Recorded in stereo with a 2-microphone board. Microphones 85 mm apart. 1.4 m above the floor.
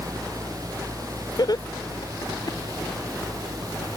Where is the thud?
No thud in this recording.